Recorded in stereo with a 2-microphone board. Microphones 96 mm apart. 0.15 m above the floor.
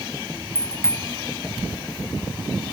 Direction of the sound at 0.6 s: 30° left (ahead or behind).